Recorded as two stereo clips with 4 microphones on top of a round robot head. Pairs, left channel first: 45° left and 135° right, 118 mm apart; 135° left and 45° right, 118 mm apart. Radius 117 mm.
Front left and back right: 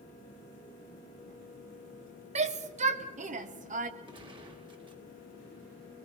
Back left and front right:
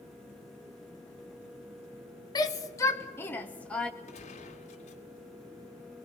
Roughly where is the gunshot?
Behind.